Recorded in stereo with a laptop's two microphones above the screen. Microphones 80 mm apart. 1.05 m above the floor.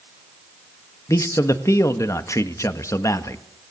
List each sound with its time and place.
1.1 s a man speaking: 40° left (ahead or behind), 1.4 m